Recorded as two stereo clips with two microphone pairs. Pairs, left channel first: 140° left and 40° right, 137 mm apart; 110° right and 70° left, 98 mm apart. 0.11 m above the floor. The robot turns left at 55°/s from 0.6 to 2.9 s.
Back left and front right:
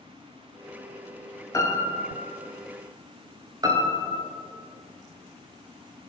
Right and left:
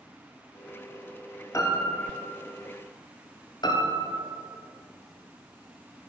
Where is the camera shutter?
No camera shutter in this recording.